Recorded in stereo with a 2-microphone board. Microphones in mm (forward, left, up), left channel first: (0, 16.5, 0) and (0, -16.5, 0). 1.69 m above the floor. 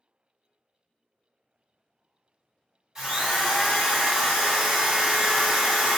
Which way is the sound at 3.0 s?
20° right (ahead or behind).